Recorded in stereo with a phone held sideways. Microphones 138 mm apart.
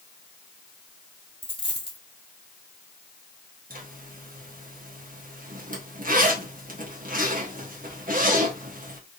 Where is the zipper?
70° right (ahead or behind), 0.9 m.